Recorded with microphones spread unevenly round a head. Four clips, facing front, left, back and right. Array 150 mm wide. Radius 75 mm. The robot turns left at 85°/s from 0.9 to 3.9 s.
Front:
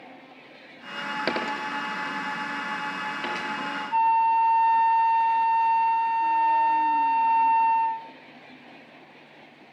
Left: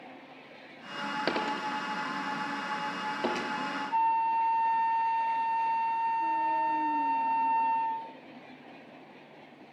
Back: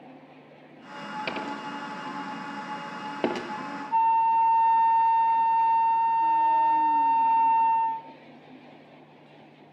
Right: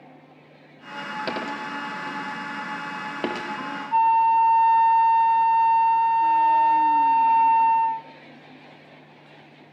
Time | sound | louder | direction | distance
1.3 | a dropped coin | even, front 6 dB | 15° left | 2.5 m
3.9 | a flute | right 9 dB, front 1 dB | 50° right | 0.5 m